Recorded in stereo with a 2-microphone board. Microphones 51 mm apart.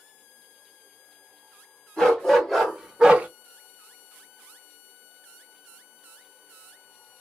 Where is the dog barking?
5° left (ahead or behind), 2 m; by 3.3 s 30° right (ahead or behind), 0.8 m.